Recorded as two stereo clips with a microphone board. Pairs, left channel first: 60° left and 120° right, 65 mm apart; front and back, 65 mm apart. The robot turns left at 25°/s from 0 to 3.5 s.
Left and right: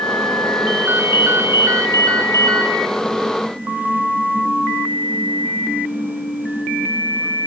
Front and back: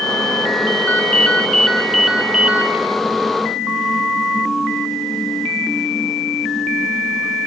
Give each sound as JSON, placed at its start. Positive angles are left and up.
{"t": 0.9, "sound": "a ringtone", "azimuth_deg": -65, "distance_m": 4.5}